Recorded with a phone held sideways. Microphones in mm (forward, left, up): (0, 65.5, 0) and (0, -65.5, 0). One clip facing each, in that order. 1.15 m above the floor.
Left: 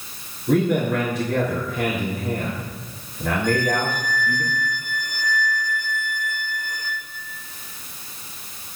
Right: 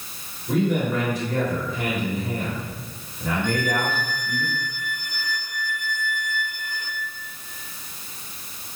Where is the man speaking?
55° left (ahead or behind), 3.5 m.